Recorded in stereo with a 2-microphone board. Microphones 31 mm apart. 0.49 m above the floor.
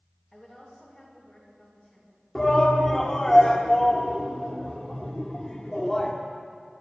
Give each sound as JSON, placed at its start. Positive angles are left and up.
{"t": 0.3, "sound": "a woman speaking", "side_deg": 15, "distance_m": 7.0}
{"t": 2.4, "sound": "a shout", "side_deg": 20, "distance_m": 1.4}